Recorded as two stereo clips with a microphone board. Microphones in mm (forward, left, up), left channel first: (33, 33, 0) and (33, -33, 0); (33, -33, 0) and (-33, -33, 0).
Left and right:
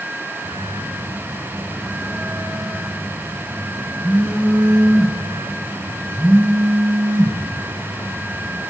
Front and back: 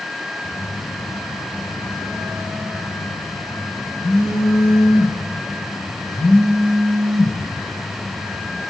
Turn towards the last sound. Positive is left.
turn(degrees=-25)